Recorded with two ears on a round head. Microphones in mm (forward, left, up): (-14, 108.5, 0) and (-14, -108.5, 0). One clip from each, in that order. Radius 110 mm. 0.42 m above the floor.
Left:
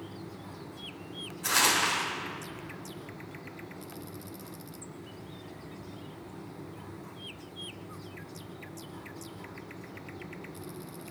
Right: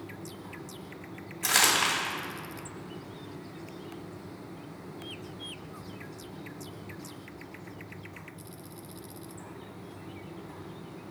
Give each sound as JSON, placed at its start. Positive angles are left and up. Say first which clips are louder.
{"t": 1.4, "sound": "crumpling", "louder": "right 1 dB", "side_deg": -50, "distance_m": 3.0}